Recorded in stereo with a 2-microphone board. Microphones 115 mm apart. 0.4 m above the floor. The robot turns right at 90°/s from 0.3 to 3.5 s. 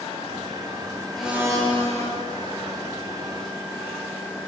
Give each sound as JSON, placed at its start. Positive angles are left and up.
{"t": 1.1, "sound": "a blender", "azimuth_deg": 175, "distance_m": 6.0}